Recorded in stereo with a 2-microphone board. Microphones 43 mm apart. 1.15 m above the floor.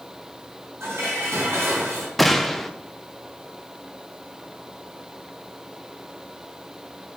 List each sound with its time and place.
0.8 s dishes clattering: 75° right (ahead or behind), 4.5 m
2.2 s a gunshot: 5° left (ahead or behind), 0.6 m